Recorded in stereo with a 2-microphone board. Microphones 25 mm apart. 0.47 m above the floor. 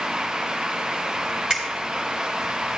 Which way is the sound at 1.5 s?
30° right (ahead or behind).